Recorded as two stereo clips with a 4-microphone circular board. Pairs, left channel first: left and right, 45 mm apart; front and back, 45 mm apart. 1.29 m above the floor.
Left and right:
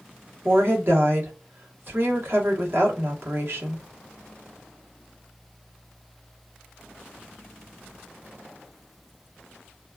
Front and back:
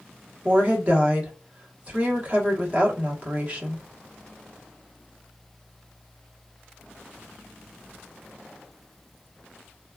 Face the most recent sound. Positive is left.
turn(degrees=-125)